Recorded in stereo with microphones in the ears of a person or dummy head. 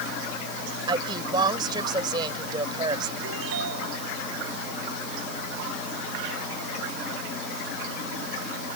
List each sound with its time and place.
0.9 s a woman speaking: 30° right (ahead or behind)
3.2 s a ringtone: 80° right